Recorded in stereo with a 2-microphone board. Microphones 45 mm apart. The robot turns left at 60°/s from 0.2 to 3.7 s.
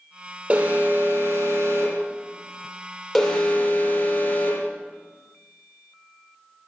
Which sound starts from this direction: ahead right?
An alarm, at 0.5 s.